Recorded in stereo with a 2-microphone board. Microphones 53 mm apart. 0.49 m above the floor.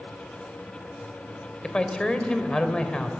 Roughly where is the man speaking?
Centre.